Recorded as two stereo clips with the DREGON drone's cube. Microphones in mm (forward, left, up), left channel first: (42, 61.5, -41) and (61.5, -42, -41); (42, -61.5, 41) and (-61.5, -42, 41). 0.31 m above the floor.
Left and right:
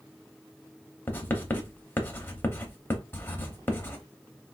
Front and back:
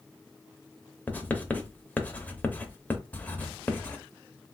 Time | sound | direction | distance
1.1 | writing | 50° left | 0.6 m